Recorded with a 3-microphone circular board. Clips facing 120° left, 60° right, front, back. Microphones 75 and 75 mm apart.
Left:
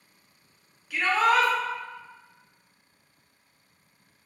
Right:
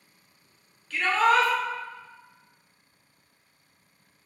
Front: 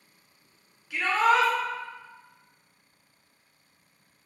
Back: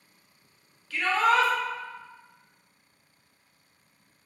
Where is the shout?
50° left, 0.6 m.